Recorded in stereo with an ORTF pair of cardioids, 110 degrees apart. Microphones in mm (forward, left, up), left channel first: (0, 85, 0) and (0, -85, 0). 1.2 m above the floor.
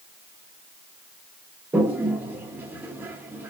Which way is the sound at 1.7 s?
10° right.